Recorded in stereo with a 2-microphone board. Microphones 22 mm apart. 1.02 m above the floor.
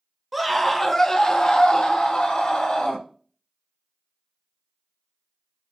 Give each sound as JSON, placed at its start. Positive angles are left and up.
{"t": 0.3, "sound": "a scream", "side_deg": -10, "distance_m": 0.7}